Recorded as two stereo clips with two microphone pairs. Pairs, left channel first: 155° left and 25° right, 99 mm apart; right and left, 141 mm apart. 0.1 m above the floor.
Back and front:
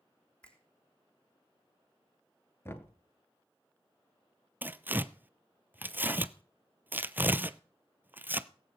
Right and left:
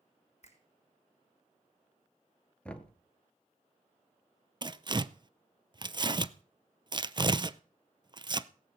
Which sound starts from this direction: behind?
Knocking, at 2.6 s.